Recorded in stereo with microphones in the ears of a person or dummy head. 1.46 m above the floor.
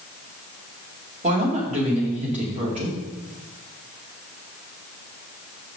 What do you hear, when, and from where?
1.2 s a woman speaking: 35° right (ahead or behind), 2.5 m